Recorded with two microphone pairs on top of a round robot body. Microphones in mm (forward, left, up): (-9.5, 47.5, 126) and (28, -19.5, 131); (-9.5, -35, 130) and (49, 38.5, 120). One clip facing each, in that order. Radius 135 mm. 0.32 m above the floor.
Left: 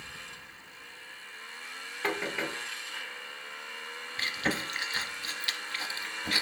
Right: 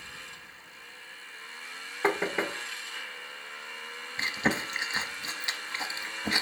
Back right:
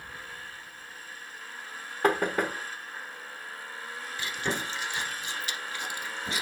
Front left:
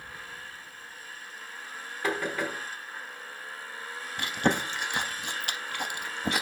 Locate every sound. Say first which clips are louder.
2.0 s knocking: right 5 dB, back right 5 dB; 110° right, 1.2 m
4.2 s chewing: right 3 dB, front left 6 dB; 10° left, 0.6 m